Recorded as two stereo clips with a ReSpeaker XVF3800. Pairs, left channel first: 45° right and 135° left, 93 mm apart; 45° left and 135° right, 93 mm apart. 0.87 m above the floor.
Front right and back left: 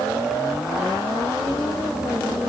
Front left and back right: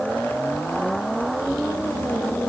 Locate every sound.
Only background noise.